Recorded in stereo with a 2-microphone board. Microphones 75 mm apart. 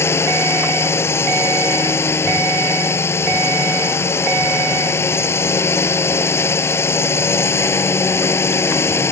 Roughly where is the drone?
Left.